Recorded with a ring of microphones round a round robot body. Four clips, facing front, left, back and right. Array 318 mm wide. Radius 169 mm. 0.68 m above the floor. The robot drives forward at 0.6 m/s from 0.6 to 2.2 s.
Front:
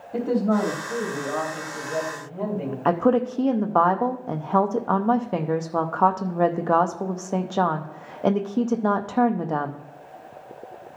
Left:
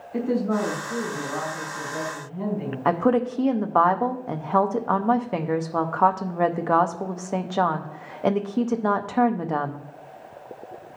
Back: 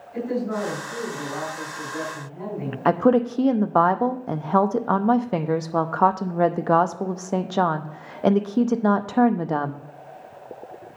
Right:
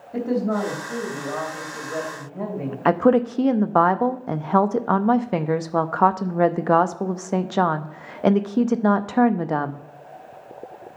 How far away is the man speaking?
About 3.5 m.